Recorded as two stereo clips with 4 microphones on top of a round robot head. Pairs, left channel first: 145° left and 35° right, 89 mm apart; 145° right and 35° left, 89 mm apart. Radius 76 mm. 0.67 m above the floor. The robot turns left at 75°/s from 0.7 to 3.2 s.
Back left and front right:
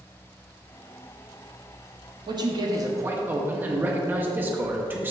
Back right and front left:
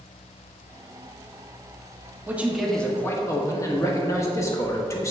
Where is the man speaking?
25° right, 1.3 m; by 5.1 s 100° right, 1.3 m.